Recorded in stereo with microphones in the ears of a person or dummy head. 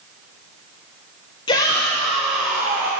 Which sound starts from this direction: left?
A shout, at 1.5 s.